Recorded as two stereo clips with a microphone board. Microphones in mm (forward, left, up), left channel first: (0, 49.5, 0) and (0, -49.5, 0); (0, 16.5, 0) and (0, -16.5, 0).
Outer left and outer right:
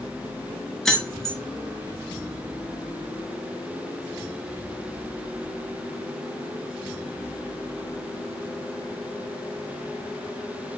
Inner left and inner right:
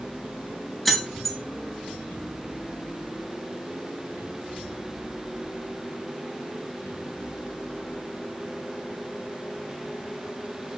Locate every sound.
0.8 s keys jangling: 5° left (ahead or behind), 1.2 m